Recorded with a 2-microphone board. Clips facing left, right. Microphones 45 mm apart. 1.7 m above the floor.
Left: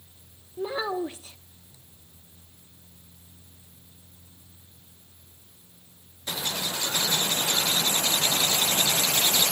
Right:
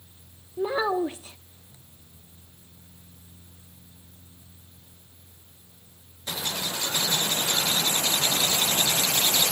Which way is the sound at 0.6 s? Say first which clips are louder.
Right 4 dB; 20° right (ahead or behind).